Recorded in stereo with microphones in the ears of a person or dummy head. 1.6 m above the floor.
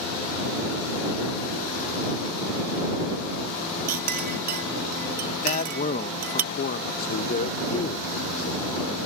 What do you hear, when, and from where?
3.9 s a clink: 45° right (ahead or behind)
5.4 s a man speaking: 45° left (ahead or behind)
7.0 s a man speaking: 50° left (ahead or behind)